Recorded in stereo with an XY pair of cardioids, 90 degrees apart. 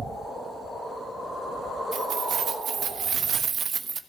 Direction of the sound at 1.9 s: 70° right.